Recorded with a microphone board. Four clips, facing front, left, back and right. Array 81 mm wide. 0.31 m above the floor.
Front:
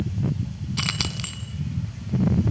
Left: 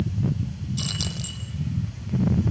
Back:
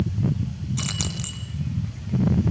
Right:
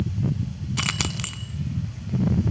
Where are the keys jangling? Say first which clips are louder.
Right 7 dB, front 1 dB; 70° right, 2 m.